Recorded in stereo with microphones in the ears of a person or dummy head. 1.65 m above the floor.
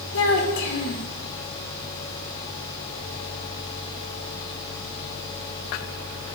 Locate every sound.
0.1 s a child speaking: 60° left (ahead or behind), 2 m